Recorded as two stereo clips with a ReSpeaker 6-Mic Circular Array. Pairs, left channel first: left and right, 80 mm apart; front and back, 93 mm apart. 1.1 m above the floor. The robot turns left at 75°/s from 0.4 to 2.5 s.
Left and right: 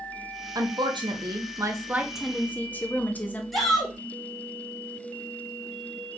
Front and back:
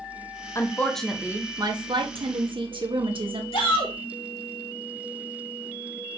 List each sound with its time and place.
0.6 s a woman speaking: 55° right, 1.6 m; by 3.4 s 160° left, 1.6 m
3.5 s a shout: straight ahead, 3 m